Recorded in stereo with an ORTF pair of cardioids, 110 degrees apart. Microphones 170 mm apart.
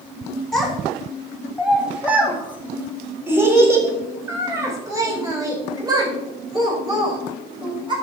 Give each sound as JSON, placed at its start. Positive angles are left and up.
{"t": 0.5, "sound": "a child speaking", "azimuth_deg": 0, "distance_m": 4.0}